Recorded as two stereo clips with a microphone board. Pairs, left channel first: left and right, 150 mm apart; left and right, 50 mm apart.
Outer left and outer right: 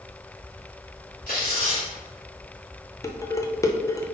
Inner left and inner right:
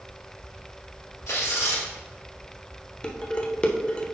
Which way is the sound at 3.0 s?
20° left (ahead or behind).